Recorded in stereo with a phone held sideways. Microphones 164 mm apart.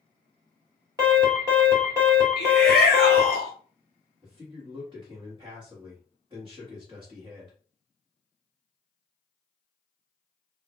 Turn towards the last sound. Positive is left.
turn(degrees=-25)  # may be behind; listen again after turning